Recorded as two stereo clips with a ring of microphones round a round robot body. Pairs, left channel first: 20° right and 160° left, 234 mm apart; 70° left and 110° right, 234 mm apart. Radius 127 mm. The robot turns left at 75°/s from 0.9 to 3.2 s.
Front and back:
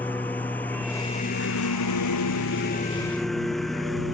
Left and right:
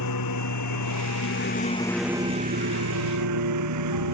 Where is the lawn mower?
60° left; by 4.1 s 110° right.